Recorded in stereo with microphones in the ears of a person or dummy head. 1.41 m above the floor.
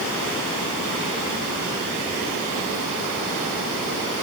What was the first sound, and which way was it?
Only background noise.